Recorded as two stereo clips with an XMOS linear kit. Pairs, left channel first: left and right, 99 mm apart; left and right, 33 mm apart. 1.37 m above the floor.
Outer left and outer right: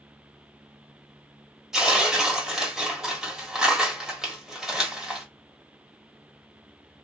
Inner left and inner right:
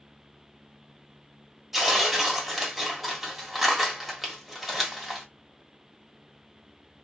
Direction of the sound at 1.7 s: 5° right (ahead or behind).